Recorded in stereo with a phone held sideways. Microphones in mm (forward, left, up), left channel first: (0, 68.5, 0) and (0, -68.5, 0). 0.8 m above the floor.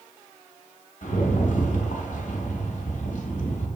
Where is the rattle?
65° left (ahead or behind), 0.8 m.